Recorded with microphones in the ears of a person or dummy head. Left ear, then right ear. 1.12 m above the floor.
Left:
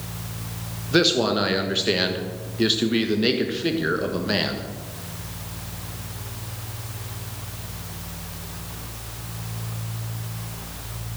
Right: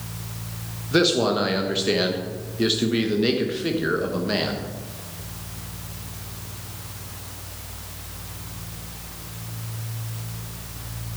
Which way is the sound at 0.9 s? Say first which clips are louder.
Even; 5° left (ahead or behind).